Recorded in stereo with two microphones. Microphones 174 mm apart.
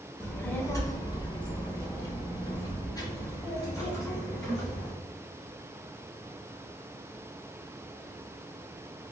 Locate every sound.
0.2 s a child speaking: 10° left (ahead or behind), 0.6 m; by 4.9 s 20° left (ahead or behind), 2.5 m